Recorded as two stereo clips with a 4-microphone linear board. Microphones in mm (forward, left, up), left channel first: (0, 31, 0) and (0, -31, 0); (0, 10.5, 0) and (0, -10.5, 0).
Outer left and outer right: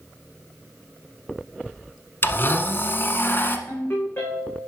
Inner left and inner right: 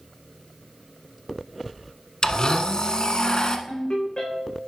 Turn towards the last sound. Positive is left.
turn(degrees=40)  # may be behind; listen again after turning